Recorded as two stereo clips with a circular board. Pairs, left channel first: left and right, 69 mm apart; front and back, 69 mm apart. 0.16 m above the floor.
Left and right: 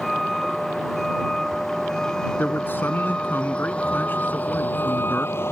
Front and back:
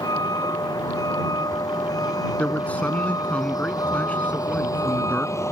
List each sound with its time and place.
0.0 s a vehicle: straight ahead; by 5.5 s 40° left
2.4 s a man speaking: 55° left